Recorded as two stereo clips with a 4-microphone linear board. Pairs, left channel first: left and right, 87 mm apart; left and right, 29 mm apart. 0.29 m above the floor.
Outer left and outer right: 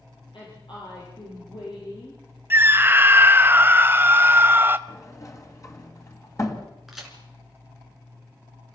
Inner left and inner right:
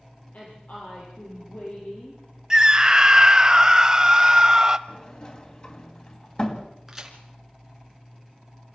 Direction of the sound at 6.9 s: Centre (ahead or behind).